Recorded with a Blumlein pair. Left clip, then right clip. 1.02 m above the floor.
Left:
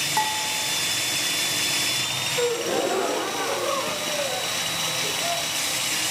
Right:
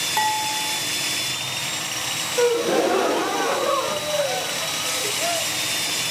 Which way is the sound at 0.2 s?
Straight ahead.